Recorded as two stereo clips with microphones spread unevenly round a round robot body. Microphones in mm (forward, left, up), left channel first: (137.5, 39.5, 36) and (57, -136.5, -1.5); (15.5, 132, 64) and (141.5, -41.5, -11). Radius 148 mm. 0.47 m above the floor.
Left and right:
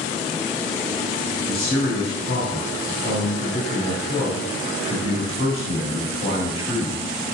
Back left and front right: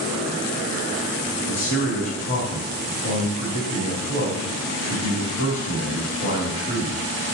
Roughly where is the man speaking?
Left.